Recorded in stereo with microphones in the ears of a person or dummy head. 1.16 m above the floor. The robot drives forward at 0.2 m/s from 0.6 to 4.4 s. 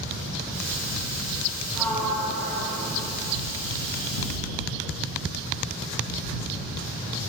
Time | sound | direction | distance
1.8 | a sliding door | 5° left (ahead or behind) | 0.9 m